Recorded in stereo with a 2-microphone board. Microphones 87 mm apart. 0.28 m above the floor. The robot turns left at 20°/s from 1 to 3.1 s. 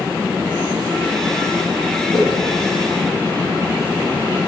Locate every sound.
2.1 s a whoosh: 55° left (ahead or behind), 6.5 m; by 2.3 s 50° left (ahead or behind), 6.5 m